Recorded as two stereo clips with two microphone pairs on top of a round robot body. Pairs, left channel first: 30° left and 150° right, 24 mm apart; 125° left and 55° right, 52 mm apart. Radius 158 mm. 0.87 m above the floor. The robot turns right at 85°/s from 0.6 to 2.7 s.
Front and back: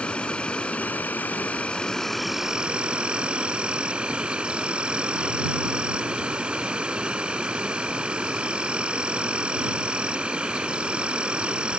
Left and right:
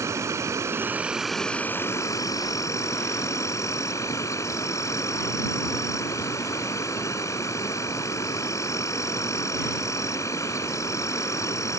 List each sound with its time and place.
0.0 s an insect: 25° right; by 11.8 s 155° left